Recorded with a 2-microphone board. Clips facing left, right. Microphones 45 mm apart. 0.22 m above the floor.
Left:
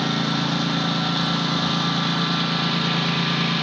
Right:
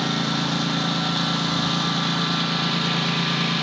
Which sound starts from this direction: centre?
A lawn mower, at 0.0 s.